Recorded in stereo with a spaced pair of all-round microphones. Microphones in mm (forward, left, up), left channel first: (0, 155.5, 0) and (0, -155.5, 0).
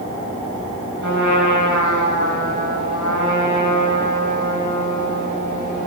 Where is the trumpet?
70° left (ahead or behind), 6.5 m.